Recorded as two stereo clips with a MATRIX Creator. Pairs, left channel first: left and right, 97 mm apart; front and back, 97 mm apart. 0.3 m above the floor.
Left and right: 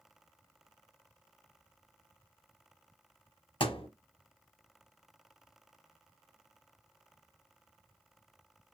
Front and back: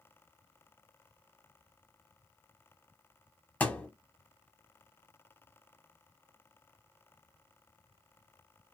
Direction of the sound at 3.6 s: 75° left.